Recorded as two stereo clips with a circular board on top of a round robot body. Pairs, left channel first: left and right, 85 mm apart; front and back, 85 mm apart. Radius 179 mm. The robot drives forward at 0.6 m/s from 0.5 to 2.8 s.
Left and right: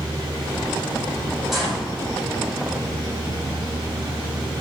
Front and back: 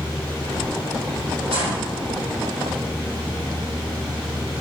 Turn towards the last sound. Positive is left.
turn(degrees=180)